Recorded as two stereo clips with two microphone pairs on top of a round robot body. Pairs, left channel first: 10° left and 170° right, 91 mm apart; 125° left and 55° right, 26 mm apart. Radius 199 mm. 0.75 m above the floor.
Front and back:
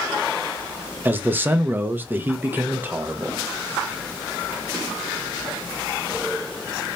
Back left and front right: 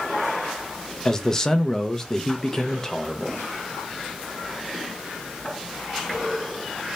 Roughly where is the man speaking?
Behind right.